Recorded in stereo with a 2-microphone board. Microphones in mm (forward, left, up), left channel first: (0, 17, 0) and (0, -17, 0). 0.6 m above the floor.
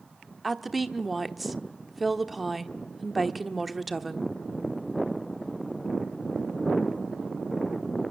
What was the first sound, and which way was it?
A woman speaking, centre (ahead or behind).